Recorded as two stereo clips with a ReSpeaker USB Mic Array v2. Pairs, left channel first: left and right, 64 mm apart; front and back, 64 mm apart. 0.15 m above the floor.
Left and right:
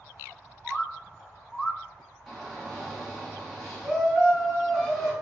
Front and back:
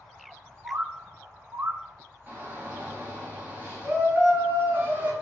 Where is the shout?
Straight behind, 1.6 m.